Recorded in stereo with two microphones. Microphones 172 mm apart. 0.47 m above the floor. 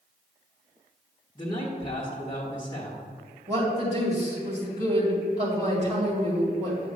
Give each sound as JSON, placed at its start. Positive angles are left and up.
{"t": 1.4, "sound": "a man speaking", "side_deg": 25, "distance_m": 1.1}
{"t": 3.5, "sound": "a woman speaking", "side_deg": -40, "distance_m": 2.5}